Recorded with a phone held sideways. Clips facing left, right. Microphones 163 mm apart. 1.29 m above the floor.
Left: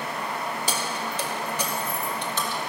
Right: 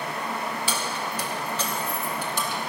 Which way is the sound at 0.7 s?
40° left (ahead or behind).